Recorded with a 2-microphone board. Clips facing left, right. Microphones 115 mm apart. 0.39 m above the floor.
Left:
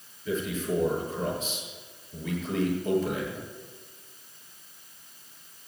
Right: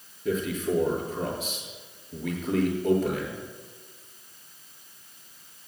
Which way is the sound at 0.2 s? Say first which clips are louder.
Right 2 dB; 65° right (ahead or behind).